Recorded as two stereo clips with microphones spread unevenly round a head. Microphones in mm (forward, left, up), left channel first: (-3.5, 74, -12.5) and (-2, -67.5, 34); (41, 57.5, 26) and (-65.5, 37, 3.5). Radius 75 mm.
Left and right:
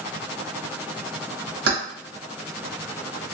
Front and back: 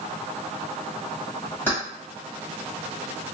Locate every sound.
1.7 s keys jangling: 70° right, 1.2 m